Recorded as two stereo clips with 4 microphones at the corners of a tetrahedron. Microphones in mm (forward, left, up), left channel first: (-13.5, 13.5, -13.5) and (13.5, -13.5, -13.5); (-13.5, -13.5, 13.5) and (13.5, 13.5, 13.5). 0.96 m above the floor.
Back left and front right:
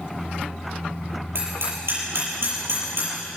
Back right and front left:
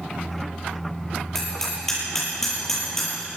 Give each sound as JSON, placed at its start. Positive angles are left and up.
{"t": 1.4, "sound": "hammering", "azimuth_deg": -55, "distance_m": 9.5}